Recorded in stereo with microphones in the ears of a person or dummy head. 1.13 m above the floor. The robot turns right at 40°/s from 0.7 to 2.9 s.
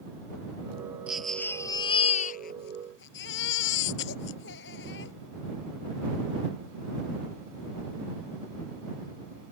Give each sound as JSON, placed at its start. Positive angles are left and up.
{"t": 1.1, "sound": "a baby crying", "azimuth_deg": -5}